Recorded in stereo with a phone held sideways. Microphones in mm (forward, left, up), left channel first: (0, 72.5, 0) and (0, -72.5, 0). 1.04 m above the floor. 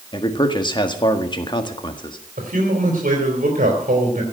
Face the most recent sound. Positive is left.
turn(degrees=-70)  # may be behind; listen again after turning